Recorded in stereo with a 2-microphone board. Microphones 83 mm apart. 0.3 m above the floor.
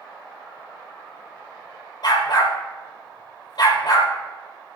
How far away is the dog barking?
About 3.5 m.